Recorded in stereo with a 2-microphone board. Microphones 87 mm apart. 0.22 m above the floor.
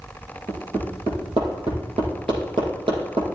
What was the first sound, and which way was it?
Hammering, 80° right.